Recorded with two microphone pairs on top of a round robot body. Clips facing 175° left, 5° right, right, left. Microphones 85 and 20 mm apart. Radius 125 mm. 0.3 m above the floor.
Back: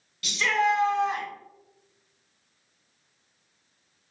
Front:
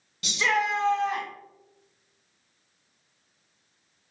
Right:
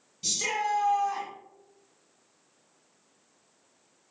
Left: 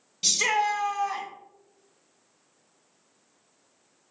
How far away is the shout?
About 1.8 m.